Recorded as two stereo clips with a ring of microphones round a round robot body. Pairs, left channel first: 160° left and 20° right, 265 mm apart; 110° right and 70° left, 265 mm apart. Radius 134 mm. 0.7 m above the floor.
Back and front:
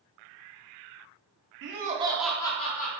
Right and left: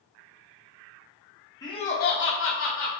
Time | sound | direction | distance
1.6 | laughter | 40° right | 0.7 m